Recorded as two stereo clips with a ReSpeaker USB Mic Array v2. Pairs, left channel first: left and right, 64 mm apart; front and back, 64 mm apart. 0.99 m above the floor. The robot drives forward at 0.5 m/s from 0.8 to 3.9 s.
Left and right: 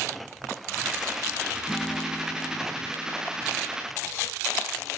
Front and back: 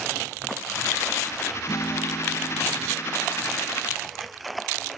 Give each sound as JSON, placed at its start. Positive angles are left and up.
{"t": 1.7, "sound": "a guitar", "azimuth_deg": 5}